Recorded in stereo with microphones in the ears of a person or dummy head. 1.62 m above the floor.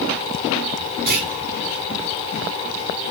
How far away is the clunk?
About 3.5 m.